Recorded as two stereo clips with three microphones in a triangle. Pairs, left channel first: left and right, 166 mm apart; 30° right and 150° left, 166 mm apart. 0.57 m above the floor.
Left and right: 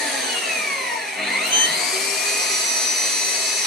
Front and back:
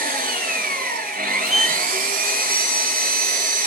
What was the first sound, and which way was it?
An engine running, straight behind.